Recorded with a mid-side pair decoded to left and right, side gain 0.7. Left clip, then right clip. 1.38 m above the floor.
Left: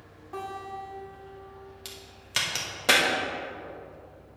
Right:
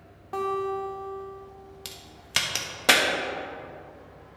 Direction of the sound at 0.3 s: 30° right.